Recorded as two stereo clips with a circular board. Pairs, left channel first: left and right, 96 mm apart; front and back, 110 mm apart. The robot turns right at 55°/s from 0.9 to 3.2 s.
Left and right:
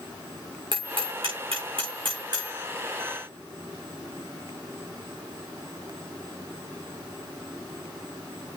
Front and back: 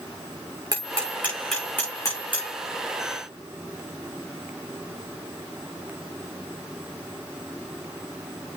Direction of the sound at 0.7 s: 125° right.